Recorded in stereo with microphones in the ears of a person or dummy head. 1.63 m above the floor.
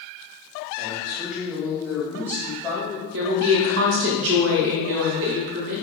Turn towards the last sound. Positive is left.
turn(degrees=-60)  # may be behind; listen again after turning